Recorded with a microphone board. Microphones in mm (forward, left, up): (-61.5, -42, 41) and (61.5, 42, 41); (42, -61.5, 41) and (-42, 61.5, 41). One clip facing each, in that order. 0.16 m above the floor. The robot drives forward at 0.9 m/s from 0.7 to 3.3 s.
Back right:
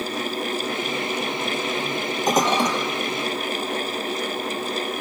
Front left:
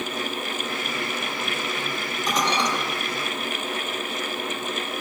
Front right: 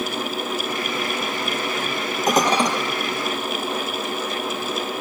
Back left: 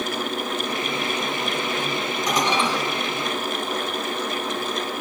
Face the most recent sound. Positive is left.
turn(degrees=-115)